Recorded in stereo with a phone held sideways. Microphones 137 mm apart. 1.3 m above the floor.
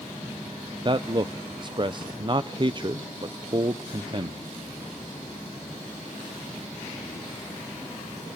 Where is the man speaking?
35° right (ahead or behind), 0.6 m.